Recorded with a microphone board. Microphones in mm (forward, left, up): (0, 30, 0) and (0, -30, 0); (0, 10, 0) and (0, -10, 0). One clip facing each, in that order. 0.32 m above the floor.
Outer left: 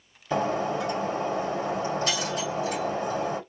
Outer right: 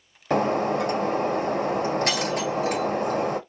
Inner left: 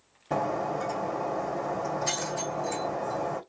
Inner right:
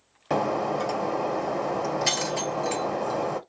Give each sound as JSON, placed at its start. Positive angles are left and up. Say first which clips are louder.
{"t": 0.3, "sound": "breaking glass", "louder": "outer right 4 dB, inner right 3 dB", "side_deg": -75, "distance_m": 1.2}